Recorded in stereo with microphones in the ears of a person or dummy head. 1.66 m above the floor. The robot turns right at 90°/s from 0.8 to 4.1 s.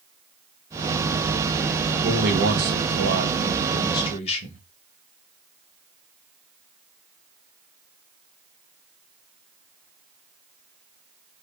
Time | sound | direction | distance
2.0 | a man speaking | 150° right | 1.0 m